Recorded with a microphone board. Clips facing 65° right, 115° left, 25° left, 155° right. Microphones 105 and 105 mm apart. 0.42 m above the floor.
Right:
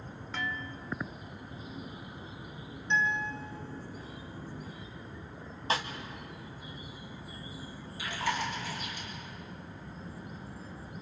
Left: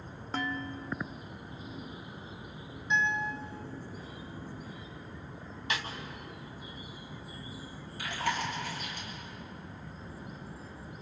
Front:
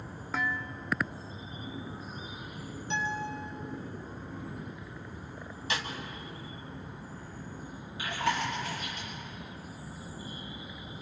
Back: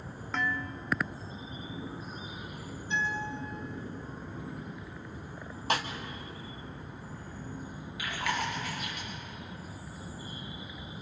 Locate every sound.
0.3 s dishes clattering: 105° left, 0.7 m
2.9 s a guitar: 30° left, 4 m
5.7 s a snare drum: 120° right, 1.6 m
8.0 s chewing: 80° left, 7 m